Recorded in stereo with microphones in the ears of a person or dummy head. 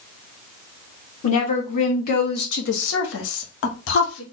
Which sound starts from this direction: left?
A woman speaking, at 1.2 s.